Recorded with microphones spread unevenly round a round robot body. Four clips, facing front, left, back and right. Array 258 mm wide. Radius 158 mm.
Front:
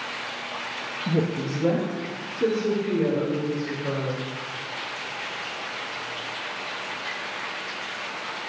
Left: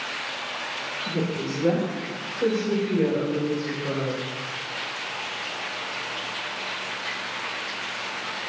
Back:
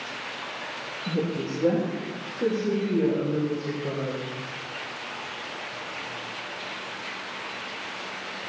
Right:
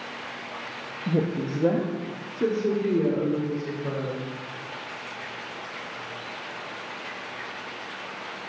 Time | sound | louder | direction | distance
1.1 | a woman speaking | right 2 dB, front 3 dB | 40° right | 0.7 m